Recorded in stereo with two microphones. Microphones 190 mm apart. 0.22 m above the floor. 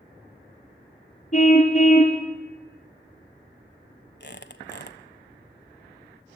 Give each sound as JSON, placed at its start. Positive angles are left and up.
{"t": 1.3, "sound": "a car horn", "side_deg": 40, "distance_m": 3.0}
{"t": 4.2, "sound": "a squeak", "side_deg": 65, "distance_m": 1.1}